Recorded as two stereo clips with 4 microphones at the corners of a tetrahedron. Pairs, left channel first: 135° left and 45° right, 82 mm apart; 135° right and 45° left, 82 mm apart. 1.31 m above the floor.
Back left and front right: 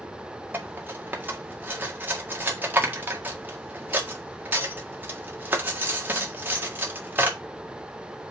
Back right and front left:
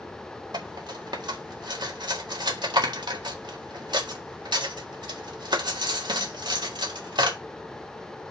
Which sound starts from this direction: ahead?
Cutlery clinking, at 0.5 s.